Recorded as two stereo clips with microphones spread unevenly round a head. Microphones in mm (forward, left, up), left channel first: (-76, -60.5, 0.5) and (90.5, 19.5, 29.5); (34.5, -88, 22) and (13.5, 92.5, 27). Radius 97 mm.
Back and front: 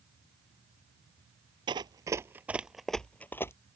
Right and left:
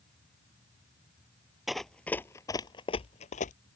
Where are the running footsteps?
10° left; by 3.5 s 75° right.